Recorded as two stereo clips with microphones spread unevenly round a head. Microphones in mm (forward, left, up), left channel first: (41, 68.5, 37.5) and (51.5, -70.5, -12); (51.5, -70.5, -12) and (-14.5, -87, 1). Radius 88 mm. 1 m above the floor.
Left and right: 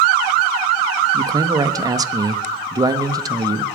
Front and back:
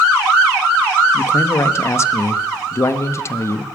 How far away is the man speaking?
About 1.2 m.